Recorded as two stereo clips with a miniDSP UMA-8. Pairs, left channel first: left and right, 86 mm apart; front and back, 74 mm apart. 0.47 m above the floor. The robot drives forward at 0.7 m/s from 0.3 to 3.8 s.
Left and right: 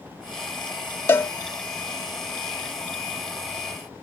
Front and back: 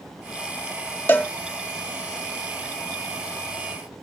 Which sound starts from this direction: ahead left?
A cowbell, at 1.1 s.